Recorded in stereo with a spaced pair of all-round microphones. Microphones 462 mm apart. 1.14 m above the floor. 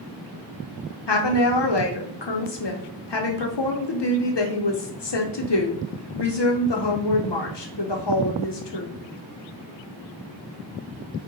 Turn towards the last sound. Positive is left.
turn(degrees=65)  # may be behind; listen again after turning